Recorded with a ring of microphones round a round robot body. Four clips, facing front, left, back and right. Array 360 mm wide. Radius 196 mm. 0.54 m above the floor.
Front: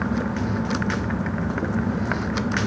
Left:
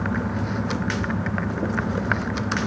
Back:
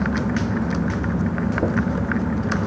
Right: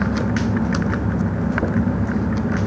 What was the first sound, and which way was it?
Only background noise.